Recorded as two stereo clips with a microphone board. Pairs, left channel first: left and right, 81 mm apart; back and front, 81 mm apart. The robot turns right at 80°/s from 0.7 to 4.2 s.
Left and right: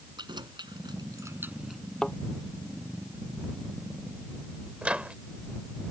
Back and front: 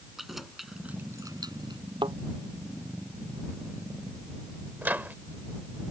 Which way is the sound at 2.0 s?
5° left.